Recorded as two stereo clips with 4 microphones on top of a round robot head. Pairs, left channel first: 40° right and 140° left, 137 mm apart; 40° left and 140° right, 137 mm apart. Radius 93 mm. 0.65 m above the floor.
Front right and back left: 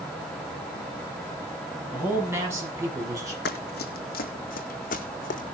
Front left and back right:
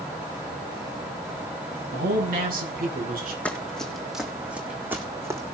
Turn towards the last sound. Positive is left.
turn(degrees=-70)